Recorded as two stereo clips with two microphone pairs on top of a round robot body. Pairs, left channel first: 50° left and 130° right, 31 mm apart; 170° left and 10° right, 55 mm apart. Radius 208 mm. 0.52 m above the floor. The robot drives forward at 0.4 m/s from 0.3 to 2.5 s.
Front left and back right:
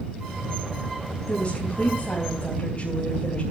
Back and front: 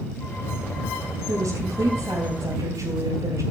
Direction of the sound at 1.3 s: Straight ahead.